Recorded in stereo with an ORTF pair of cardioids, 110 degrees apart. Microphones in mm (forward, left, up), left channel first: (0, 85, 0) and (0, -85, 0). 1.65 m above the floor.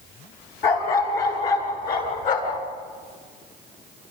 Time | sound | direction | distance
0.6 | a dog barking | 65° left | 7.5 m